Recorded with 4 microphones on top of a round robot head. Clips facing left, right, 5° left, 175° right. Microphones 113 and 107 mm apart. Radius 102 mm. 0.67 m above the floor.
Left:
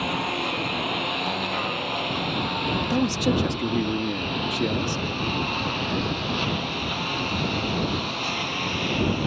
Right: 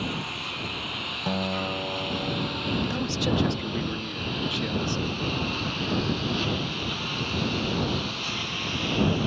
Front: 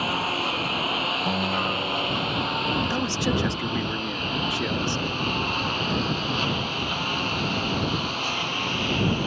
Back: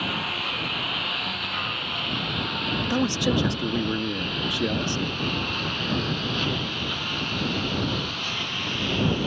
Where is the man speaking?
120° left.